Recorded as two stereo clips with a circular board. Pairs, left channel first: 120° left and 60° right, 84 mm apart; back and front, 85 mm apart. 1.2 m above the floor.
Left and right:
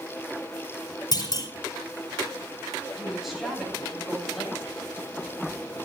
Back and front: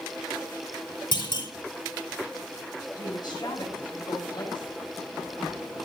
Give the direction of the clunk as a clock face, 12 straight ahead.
7 o'clock.